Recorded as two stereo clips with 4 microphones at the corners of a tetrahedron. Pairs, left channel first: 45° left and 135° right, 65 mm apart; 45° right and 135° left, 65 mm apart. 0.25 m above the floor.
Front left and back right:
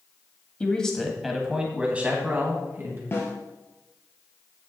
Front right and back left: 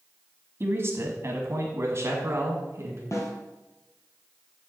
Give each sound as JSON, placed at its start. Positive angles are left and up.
{"t": 0.6, "sound": "a man speaking", "azimuth_deg": 110, "distance_m": 1.6}
{"t": 3.1, "sound": "a snare drum", "azimuth_deg": -10, "distance_m": 2.5}